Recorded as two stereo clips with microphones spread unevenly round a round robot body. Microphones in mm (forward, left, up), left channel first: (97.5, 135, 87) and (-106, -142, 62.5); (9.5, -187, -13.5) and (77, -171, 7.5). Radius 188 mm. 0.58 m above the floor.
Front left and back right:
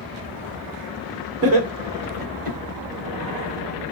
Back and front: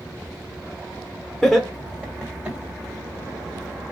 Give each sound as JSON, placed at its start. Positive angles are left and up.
{"t": 1.4, "sound": "laughter", "azimuth_deg": -75, "distance_m": 1.5}